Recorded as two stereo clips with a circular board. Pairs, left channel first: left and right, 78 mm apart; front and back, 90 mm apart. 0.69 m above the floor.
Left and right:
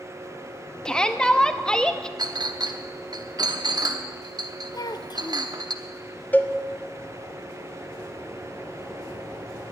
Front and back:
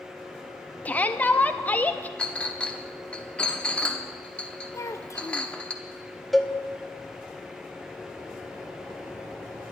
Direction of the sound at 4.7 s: 55° left.